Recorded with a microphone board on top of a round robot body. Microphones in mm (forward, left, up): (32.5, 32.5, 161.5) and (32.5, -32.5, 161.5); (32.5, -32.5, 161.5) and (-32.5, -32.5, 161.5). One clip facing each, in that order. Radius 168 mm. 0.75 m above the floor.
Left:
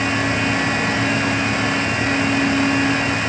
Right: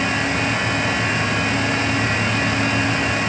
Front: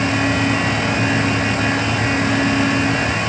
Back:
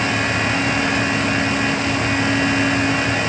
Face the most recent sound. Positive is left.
No sound to turn to.